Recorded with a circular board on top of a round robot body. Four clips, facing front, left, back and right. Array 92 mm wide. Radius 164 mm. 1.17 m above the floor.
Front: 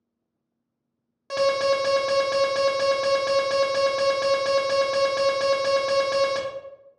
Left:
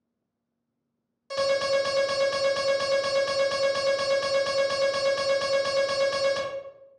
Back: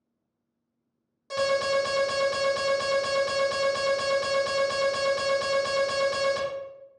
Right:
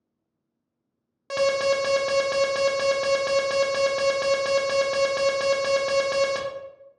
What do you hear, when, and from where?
1.3 s an alarm: 60° right, 1.2 m